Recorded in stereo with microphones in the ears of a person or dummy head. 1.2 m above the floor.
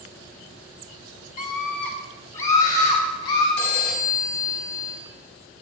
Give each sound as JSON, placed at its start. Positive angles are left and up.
{"t": 1.4, "sound": "a scream", "side_deg": 50, "distance_m": 2.0}
{"t": 3.6, "sound": "a phone ringing", "side_deg": 65, "distance_m": 4.0}